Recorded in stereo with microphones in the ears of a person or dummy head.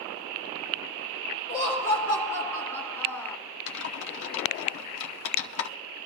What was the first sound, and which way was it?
Laughter, 15° left (ahead or behind).